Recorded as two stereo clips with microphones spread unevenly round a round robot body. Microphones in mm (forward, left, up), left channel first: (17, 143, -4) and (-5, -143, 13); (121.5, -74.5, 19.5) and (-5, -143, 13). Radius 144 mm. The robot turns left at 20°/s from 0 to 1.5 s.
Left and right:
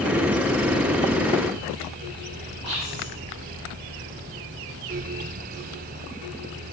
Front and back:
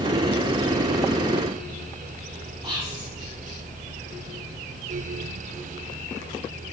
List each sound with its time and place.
2.6 s whispering: 100° right, 1.2 m